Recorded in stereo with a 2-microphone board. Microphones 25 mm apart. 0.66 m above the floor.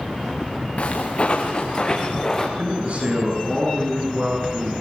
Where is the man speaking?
50° right (ahead or behind), 9 m.